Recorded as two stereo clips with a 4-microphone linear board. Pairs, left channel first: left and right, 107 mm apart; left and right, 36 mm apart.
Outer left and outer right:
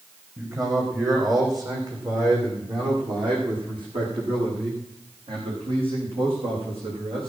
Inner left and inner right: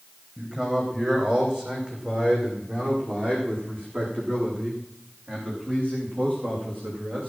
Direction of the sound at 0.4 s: 30° right (ahead or behind).